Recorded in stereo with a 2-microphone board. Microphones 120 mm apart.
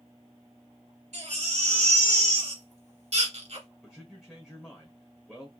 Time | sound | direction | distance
1.1 | a baby crying | 65° right (ahead or behind) | 1.8 m
3.8 | a man speaking | 5° right (ahead or behind) | 1.4 m